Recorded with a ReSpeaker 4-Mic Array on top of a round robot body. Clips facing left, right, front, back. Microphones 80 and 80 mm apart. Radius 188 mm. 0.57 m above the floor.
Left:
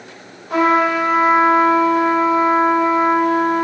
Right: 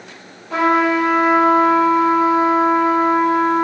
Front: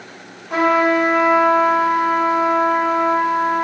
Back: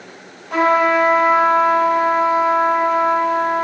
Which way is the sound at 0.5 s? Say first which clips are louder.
Left 1 dB, back 1 dB; 65° left.